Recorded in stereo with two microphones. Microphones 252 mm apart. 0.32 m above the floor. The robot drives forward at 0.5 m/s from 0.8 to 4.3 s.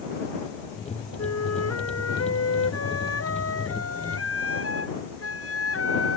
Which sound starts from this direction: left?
A flute, at 1.2 s.